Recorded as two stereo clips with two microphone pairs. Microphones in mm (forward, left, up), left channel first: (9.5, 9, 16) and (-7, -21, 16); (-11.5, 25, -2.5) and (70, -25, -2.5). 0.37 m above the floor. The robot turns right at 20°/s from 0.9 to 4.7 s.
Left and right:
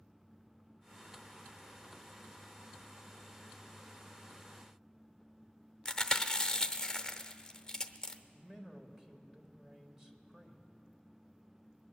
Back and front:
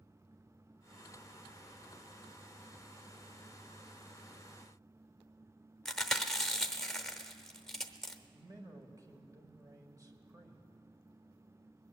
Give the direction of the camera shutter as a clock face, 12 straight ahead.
I don't hear a camera shutter.